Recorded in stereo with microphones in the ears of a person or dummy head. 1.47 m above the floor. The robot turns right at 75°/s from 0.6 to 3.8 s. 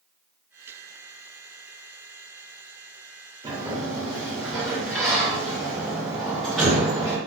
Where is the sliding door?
20° right (ahead or behind), 1.5 m; by 7.2 s 10° left (ahead or behind), 1.5 m.